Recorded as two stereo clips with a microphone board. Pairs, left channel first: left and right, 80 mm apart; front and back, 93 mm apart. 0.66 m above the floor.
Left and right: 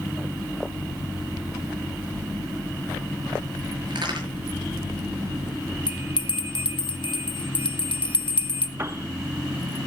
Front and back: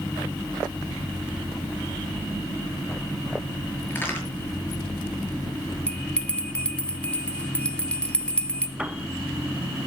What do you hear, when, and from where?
3.9 s a crack: 70° right, 7 m
5.9 s a bell: 80° left, 1.1 m
8.8 s a piano: 105° right, 1.2 m